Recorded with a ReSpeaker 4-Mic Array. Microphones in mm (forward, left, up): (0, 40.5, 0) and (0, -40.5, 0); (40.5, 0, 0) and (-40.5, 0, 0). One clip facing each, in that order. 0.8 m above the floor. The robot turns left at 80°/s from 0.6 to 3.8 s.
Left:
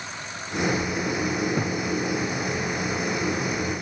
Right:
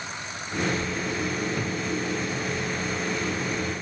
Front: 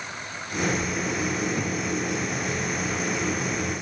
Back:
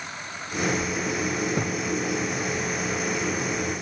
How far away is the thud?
About 1.0 m.